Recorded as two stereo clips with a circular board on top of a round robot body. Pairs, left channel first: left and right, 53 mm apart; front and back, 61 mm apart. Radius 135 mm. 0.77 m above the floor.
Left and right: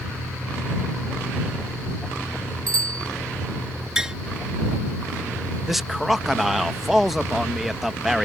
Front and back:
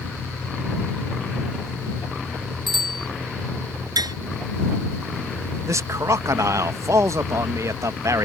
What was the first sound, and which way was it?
A bicycle bell, 90° right.